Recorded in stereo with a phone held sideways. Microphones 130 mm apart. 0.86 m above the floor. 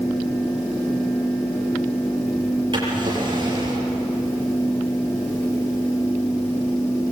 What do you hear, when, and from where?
0.0 s a fan: 15° left (ahead or behind), 10 m
2.7 s a drawer: 35° right (ahead or behind), 7 m